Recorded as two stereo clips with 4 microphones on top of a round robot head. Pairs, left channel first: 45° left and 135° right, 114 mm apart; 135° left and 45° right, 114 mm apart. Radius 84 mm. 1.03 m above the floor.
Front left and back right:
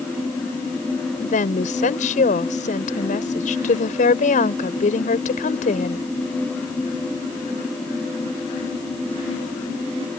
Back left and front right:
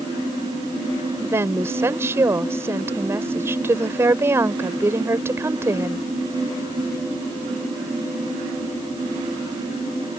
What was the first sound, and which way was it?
A woman speaking, 25° left.